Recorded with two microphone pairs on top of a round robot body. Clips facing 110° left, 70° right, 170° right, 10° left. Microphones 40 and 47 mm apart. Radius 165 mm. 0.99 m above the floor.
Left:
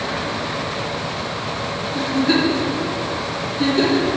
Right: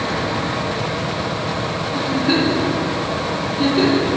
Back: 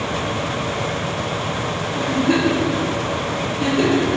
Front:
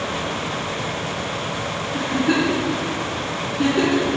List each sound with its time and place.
1.9 s a giggle: 10° left, 4.5 m